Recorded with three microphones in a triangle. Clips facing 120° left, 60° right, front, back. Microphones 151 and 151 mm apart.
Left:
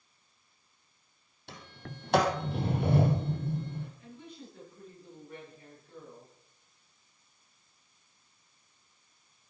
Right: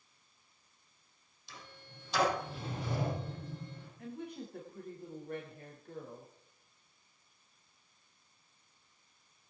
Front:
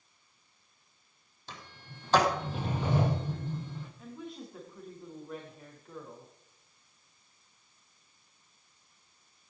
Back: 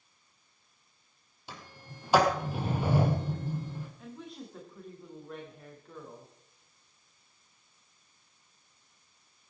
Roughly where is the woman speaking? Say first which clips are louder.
Right 5 dB, front 1 dB; right.